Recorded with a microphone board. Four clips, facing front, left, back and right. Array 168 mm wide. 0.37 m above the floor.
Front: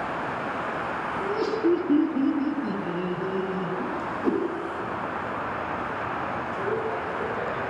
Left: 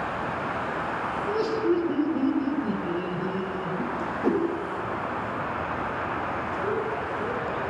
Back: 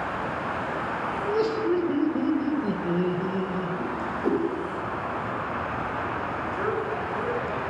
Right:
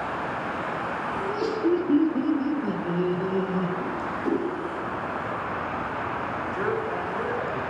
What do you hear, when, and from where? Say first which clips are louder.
1.2 s laughter: even, front 1 dB; 155° left, 2.5 m; by 3.7 s 85° right, 1.7 m
3.8 s a whoosh: left 2 dB, even; 115° left, 2 m
6.5 s a man speaking: right 1 dB, even; 135° right, 5 m